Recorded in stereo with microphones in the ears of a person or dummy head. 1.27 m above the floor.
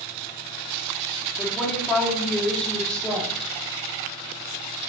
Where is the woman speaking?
Centre (ahead or behind), 2.5 m.